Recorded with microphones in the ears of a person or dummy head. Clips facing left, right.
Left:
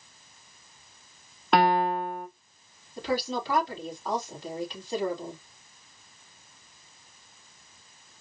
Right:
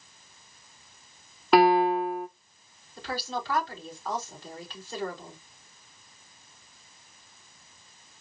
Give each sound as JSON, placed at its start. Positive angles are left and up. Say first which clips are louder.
{"t": 1.5, "sound": "a piano", "louder": "right 3 dB", "side_deg": -5, "distance_m": 0.9}
{"t": 3.0, "sound": "a woman speaking", "louder": "left 5 dB", "side_deg": 15, "distance_m": 3.0}